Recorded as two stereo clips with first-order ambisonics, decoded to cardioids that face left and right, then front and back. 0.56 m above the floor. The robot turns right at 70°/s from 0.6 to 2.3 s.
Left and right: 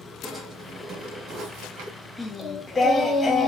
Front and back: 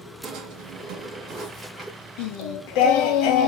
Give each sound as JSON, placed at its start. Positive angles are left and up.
{"t": 0.2, "sound": "a drawer", "azimuth_deg": -175, "distance_m": 2.0}
{"t": 2.2, "sound": "singing", "azimuth_deg": 5, "distance_m": 0.7}